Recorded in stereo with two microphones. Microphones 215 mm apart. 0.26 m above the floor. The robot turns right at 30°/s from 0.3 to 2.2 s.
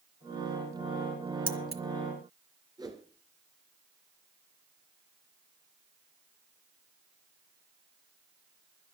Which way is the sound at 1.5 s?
40° right (ahead or behind).